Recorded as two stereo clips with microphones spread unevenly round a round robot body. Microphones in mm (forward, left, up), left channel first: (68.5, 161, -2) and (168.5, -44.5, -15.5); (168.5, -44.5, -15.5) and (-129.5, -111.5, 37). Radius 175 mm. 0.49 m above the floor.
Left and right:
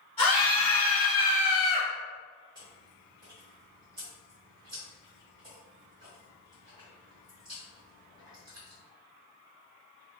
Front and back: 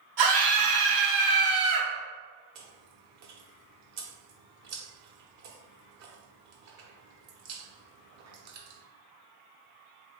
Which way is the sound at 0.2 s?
175° right.